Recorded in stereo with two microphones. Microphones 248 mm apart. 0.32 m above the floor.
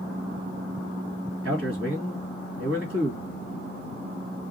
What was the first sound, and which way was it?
A man speaking, 65° right (ahead or behind).